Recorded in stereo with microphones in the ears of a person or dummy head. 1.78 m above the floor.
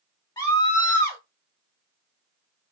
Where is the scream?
15° left (ahead or behind), 0.9 m.